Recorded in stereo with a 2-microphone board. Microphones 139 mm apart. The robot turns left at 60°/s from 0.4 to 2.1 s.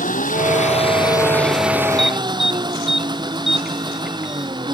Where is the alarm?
5° left (ahead or behind); by 4.5 s 5° right (ahead or behind).